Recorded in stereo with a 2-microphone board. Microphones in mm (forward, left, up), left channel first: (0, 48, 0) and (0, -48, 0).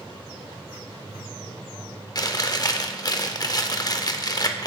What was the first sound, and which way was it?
Chewing, 40° left (ahead or behind).